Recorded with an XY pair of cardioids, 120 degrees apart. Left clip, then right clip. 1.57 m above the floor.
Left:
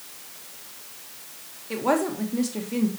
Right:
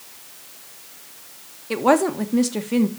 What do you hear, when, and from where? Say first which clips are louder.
1.7 s a woman speaking: right 6 dB; 40° right, 1.8 m